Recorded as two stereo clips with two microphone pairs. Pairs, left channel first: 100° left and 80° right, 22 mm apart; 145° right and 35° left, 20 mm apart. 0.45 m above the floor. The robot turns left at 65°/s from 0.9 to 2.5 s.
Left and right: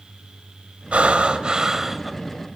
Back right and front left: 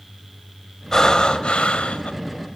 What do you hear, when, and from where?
0.9 s breathing: 85° right, 2.0 m; by 2.1 s 165° right, 2.0 m